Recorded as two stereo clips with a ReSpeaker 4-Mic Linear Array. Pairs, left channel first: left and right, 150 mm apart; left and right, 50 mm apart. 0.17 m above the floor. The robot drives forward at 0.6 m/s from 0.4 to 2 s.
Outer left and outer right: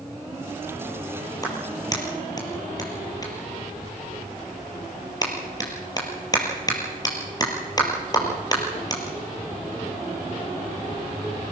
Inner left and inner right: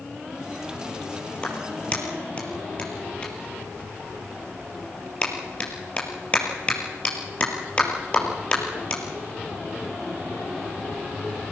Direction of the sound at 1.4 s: 25° left (ahead or behind).